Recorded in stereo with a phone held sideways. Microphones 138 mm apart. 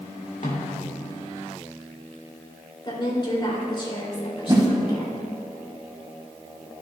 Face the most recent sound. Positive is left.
turn(degrees=-30)  # may be behind; listen again after turning